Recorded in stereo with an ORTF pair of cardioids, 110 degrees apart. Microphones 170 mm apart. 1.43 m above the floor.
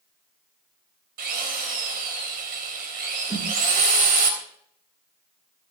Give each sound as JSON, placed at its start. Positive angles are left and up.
{"t": 1.2, "sound": "a drill", "azimuth_deg": -70, "distance_m": 3.5}
{"t": 3.3, "sound": "a snare drum", "azimuth_deg": -20, "distance_m": 8.0}